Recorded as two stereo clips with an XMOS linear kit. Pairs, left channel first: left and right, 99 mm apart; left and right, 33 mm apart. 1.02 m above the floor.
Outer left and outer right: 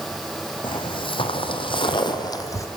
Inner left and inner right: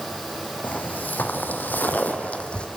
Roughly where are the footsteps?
Left.